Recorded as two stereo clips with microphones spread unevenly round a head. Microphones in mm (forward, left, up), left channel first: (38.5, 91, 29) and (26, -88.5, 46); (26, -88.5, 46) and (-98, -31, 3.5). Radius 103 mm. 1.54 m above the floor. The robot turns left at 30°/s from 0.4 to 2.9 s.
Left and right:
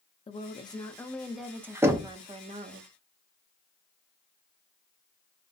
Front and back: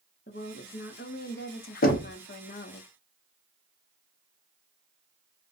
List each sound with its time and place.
0.3 s a woman speaking: 25° left, 0.6 m; by 2.8 s 50° right, 0.6 m
1.8 s knocking: 20° right, 0.5 m; by 2.1 s 30° right, 0.5 m